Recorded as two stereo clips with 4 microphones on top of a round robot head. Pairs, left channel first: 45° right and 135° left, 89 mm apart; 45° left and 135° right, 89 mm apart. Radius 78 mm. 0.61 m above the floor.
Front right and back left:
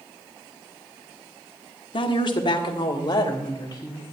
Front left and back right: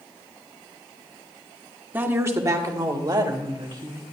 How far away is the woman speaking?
About 1.5 m.